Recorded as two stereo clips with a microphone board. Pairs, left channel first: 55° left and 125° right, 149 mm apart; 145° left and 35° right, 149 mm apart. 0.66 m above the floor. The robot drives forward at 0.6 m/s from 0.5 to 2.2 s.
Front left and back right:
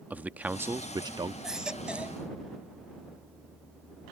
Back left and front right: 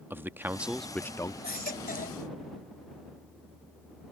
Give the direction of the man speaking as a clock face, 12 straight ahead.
2 o'clock.